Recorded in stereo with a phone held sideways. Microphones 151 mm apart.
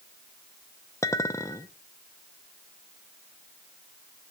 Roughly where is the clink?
Centre.